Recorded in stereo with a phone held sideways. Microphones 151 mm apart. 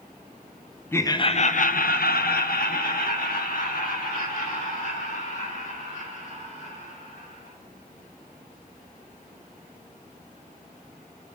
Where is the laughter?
15° left (ahead or behind), 0.5 m; by 7.5 s 60° left (ahead or behind), 4 m.